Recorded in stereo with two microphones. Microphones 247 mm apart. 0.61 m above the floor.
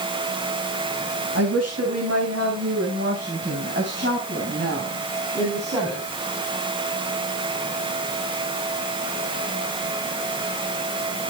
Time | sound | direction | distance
1.4 | a woman speaking | 75° right (ahead or behind) | 4.5 m